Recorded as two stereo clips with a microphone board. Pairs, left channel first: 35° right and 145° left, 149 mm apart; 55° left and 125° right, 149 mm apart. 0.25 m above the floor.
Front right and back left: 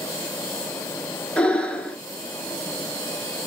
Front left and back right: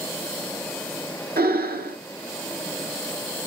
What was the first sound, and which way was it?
Breathing, 115° right.